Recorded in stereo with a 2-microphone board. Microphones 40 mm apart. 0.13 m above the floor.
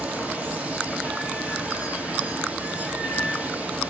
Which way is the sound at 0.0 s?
35° right (ahead or behind).